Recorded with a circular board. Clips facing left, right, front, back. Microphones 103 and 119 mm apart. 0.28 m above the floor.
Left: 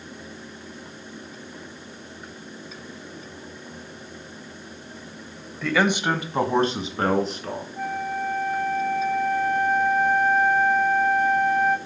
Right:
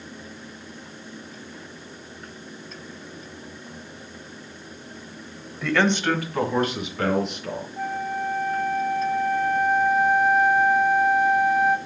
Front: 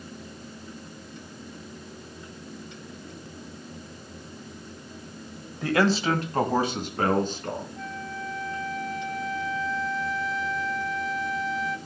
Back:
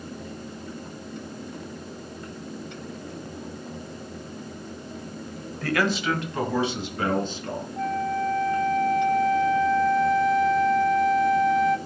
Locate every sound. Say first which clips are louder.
5.6 s a man speaking: even, front 2 dB; 10° right, 1.1 m; by 7.7 s 40° left, 3.5 m
7.8 s a flute: even, back 10 dB; 175° right, 0.7 m